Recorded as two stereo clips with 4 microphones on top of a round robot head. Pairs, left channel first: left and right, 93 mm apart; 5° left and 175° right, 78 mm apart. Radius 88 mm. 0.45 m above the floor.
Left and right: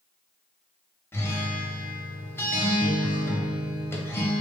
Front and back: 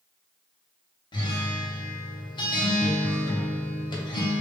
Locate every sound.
1.1 s a guitar: 25° left, 1.1 m